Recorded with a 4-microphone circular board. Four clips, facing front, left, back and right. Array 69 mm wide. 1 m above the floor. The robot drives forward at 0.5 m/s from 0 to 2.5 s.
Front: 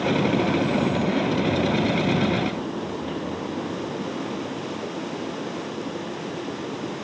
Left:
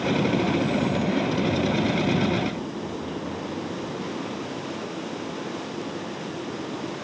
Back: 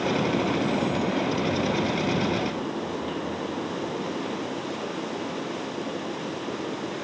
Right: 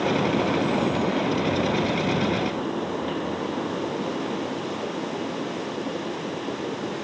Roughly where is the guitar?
No guitar in this recording.